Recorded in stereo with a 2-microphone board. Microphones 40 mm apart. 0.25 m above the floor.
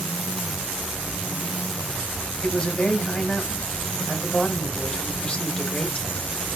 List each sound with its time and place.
2.4 s a man speaking: 25° left (ahead or behind), 1.1 m